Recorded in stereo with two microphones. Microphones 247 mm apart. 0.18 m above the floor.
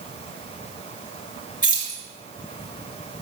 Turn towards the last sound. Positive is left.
turn(degrees=30)  # may be behind; listen again after turning